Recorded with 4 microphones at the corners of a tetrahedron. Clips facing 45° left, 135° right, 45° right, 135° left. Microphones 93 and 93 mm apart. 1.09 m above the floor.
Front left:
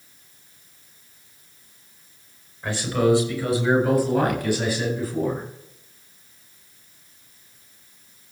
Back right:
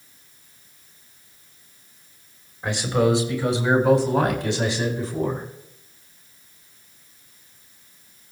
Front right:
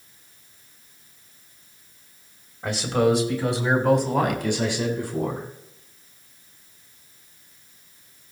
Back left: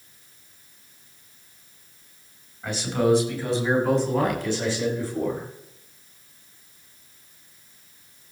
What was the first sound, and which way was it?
A man speaking, 65° right.